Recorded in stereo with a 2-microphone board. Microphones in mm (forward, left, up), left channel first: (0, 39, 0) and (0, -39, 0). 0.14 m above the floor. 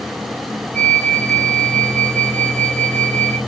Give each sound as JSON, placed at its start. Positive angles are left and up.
{"t": 0.7, "sound": "a flute", "side_deg": 25, "distance_m": 2.0}